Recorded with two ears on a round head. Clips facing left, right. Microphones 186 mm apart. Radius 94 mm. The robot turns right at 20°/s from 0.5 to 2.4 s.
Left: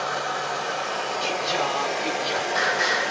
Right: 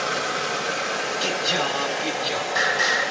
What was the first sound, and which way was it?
Running water, 35° right.